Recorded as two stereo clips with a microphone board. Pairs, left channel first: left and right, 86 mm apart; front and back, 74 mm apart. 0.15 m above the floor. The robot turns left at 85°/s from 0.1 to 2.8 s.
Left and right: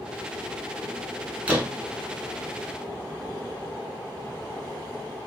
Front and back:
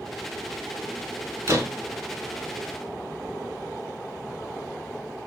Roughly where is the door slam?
Behind right.